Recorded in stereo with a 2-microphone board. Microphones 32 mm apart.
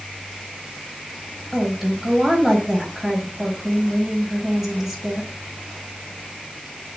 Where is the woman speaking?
5° right (ahead or behind), 4.5 m.